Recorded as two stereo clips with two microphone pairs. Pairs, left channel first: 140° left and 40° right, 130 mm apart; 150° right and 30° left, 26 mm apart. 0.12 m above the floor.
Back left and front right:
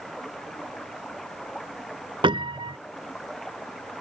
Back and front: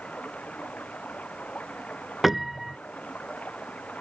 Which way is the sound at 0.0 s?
130° right.